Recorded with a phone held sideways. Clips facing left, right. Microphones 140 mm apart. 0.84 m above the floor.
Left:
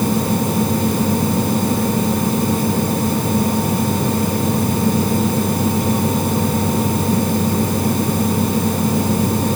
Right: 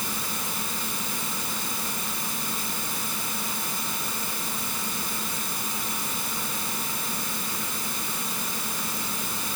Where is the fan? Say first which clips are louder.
Left 18 dB; 55° left (ahead or behind).